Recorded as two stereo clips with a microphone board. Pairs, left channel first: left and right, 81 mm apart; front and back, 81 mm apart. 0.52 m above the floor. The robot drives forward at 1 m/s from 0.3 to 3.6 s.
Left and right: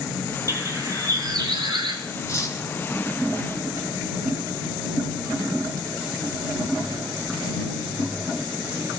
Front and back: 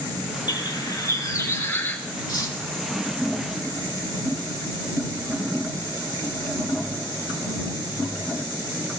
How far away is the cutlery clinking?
About 3 m.